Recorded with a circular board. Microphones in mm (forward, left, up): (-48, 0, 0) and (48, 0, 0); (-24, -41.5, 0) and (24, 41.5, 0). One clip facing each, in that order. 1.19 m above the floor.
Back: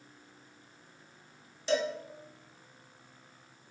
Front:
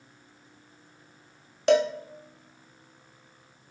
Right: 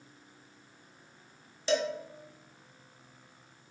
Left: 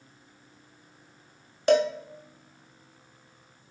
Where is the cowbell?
25° left, 0.5 m.